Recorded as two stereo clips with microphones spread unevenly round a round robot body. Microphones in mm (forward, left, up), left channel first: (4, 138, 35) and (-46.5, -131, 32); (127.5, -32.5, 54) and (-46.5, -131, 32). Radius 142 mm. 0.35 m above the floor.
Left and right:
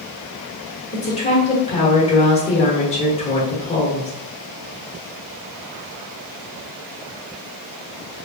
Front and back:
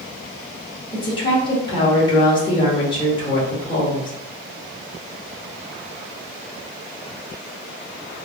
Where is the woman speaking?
70° left, 1.1 m.